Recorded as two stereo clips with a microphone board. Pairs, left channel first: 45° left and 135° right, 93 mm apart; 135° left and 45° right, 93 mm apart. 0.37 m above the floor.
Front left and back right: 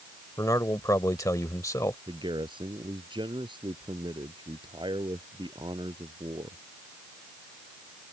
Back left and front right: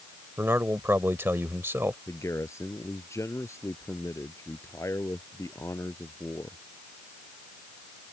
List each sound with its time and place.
0.4 s a man speaking: 10° left
2.1 s a man speaking: 165° right